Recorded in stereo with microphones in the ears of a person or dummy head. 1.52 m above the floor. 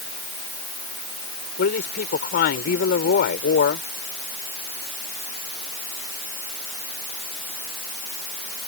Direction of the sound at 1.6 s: 60° left (ahead or behind).